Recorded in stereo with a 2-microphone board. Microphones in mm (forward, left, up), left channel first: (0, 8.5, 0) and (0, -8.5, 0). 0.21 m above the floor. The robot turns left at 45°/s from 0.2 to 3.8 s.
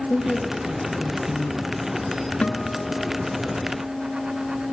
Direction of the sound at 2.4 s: 75° left.